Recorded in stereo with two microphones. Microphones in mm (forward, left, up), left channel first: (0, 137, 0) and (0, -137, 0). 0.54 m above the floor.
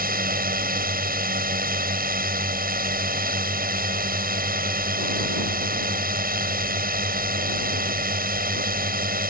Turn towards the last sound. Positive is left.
turn(degrees=-30)  # may be behind; listen again after turning